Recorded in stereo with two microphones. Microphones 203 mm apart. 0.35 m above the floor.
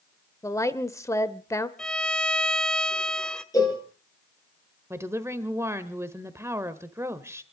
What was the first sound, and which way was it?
A woman speaking, 15° left (ahead or behind).